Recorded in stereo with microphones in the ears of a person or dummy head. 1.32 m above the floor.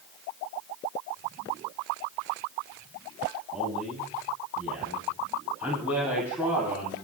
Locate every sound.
3.5 s a man speaking: 5° right (ahead or behind), 9.5 m; by 7.0 s 10° right (ahead or behind), 12 m